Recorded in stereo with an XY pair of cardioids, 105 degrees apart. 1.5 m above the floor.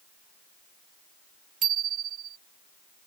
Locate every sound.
1.6 s a bicycle bell: 60° right